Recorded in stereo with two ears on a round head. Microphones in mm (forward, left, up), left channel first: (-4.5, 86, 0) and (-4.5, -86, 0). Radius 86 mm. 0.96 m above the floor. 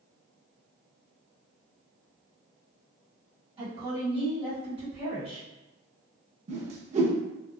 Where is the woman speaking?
30° right (ahead or behind), 1.6 m.